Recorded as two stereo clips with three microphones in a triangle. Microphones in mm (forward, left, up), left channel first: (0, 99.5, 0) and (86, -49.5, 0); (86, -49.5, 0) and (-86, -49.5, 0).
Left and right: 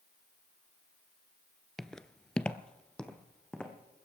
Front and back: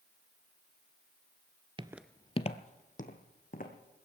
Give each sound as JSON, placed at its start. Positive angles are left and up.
{"t": 1.8, "sound": "footsteps", "azimuth_deg": -150, "distance_m": 0.6}